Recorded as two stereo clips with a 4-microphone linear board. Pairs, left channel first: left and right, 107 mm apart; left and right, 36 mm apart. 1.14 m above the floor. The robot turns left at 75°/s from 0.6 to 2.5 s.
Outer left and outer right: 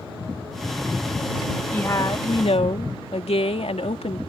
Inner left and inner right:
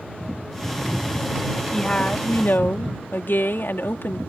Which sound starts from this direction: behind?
A woman speaking, at 1.7 s.